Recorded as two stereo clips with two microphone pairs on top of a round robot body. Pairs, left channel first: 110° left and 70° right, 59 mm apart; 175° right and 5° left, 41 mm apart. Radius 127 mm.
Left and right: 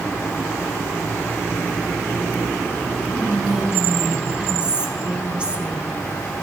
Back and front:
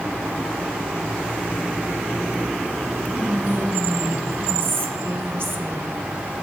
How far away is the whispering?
About 1.3 m.